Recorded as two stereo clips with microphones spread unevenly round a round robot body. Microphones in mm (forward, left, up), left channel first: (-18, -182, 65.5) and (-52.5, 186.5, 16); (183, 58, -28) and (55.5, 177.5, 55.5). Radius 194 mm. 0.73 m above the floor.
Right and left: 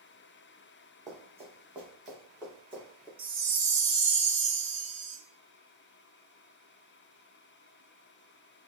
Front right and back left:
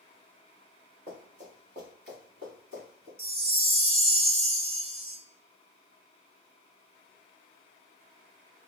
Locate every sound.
1.1 s running footsteps: straight behind, 2 m; by 3.1 s 170° right, 3 m
3.2 s a chime: 70° left, 0.9 m